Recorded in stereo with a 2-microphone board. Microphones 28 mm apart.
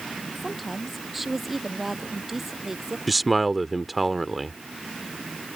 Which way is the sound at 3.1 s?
5° right (ahead or behind).